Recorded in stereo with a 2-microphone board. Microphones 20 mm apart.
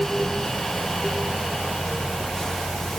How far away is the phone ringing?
No phone ringing in this recording.